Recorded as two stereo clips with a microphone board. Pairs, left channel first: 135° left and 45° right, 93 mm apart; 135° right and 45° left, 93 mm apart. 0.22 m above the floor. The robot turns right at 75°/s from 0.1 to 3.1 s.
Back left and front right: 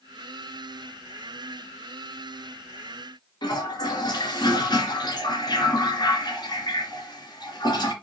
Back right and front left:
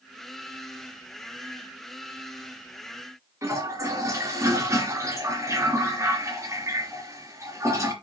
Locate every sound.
3.4 s a toilet flushing: 100° left, 2.5 m